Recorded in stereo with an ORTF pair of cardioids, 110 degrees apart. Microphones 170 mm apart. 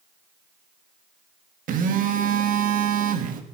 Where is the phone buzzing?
60° right, 1.8 m.